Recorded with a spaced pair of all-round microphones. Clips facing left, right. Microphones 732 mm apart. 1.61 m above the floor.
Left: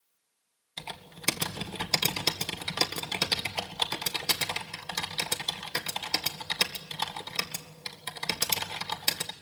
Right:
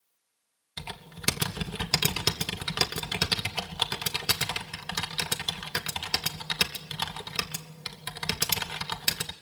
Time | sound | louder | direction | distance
0.8 | typing on a keyboard | right 2 dB | 40° right (ahead or behind) | 1.6 m